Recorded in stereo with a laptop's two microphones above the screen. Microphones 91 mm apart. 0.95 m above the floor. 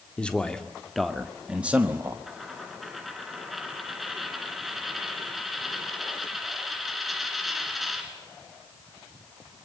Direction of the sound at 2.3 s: Centre (ahead or behind).